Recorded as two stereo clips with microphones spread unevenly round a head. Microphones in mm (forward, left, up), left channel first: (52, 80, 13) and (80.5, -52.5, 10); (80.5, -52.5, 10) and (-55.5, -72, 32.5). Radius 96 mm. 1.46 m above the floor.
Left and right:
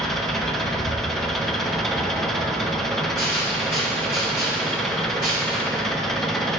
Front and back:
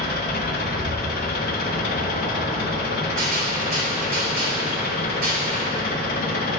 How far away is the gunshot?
About 2.5 m.